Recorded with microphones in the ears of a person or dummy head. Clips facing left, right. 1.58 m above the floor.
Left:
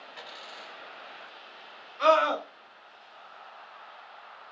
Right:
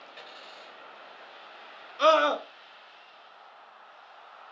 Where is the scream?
45° right (ahead or behind), 0.8 m.